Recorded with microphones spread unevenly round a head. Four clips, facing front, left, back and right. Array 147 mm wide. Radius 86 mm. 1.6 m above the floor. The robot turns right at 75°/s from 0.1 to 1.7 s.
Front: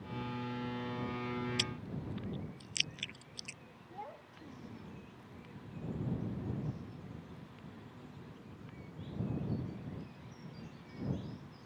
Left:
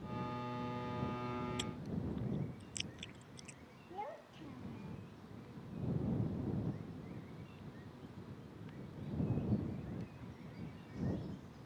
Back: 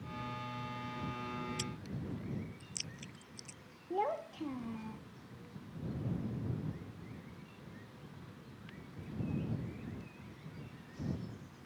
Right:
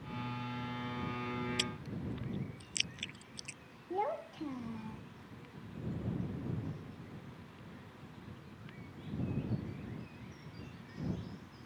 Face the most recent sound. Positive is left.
turn(degrees=-140)